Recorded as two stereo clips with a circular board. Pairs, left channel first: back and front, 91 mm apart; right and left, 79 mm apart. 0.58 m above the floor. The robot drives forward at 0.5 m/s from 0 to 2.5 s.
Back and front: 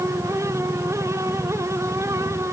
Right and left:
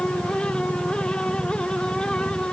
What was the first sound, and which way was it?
Only background noise.